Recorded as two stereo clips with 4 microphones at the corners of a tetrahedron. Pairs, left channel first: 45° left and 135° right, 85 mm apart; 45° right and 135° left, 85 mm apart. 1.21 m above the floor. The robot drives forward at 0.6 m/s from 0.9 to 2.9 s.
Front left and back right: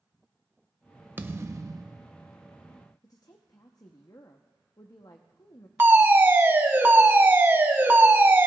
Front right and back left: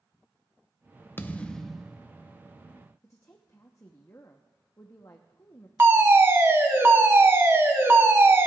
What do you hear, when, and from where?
1.2 s a thud: 90° right, 0.6 m; by 2.1 s 150° right, 0.8 m
3.0 s a woman speaking: 5° left, 0.7 m
5.8 s a fire alarm: 175° left, 1.2 m